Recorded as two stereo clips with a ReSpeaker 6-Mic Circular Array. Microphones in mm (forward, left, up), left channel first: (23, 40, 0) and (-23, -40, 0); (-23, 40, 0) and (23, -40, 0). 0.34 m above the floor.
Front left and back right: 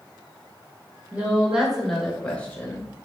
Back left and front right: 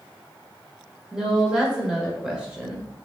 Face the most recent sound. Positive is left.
turn(degrees=15)